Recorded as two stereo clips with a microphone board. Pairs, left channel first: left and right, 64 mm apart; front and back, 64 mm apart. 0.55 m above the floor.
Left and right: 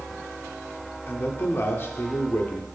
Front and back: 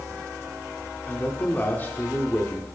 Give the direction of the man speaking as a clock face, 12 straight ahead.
10 o'clock.